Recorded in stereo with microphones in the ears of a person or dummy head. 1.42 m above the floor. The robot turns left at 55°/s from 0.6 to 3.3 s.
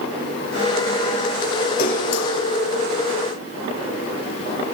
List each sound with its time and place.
1.8 s a splash: 55° left (ahead or behind), 2.5 m; by 2.3 s 70° left (ahead or behind), 2.5 m